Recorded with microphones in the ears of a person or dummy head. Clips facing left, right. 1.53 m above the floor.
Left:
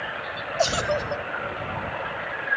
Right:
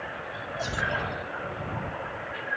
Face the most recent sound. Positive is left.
turn(degrees=75)  # may be behind; listen again after turning